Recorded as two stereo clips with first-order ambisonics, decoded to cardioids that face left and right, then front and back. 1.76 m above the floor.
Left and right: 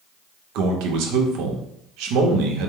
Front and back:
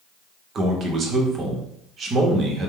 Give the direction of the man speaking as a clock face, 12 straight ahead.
4 o'clock.